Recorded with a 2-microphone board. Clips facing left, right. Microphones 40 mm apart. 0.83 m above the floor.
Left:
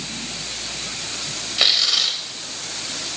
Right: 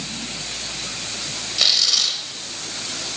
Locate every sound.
1.6 s tearing paper: 20° left (ahead or behind), 1.1 m